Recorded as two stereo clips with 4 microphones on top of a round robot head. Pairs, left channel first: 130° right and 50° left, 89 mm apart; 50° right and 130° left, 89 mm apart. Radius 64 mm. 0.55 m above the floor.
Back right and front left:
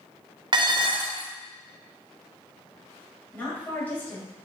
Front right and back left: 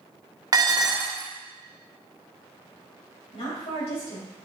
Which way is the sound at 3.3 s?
60° right.